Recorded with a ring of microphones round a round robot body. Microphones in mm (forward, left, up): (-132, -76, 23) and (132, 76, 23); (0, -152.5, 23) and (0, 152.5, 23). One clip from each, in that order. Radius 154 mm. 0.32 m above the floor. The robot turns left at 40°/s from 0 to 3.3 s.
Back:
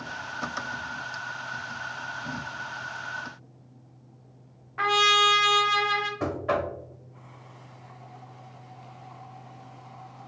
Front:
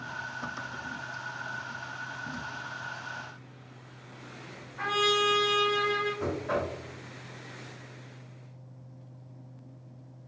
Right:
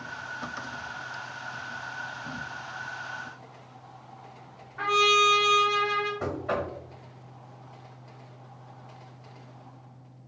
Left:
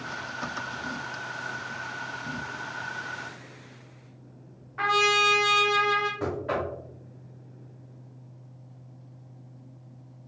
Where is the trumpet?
160° left, 0.6 m.